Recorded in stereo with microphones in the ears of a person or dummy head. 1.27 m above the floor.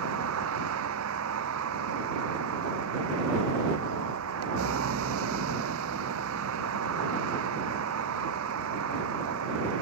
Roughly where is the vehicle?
Right.